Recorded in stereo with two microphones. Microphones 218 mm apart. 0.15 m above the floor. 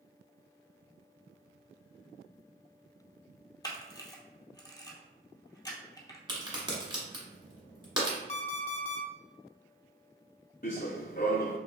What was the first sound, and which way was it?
A camera shutter, 15° left (ahead or behind).